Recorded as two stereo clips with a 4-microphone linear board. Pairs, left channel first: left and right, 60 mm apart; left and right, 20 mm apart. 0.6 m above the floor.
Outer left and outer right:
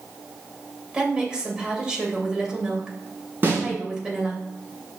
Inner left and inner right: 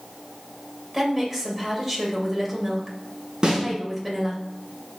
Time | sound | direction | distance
0.9 | a woman speaking | 15° right (ahead or behind) | 2.5 m
3.4 | a snare drum | 35° right (ahead or behind) | 5 m